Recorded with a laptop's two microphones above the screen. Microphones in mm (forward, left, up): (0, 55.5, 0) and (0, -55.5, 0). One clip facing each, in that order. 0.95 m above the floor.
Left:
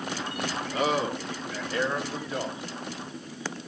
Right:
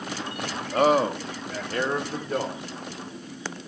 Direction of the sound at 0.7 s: 45° right (ahead or behind).